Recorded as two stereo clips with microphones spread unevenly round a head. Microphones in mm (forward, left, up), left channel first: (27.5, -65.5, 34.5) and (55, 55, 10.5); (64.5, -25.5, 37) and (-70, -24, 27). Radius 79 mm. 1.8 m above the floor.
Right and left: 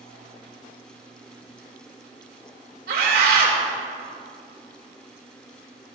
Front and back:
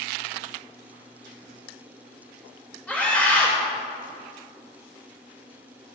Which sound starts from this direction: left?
A scream, at 2.9 s.